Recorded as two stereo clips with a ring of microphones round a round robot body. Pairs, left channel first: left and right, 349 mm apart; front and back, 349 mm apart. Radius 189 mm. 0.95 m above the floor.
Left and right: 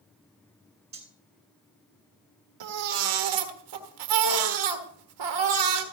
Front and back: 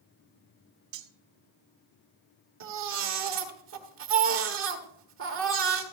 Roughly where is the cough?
No cough in this recording.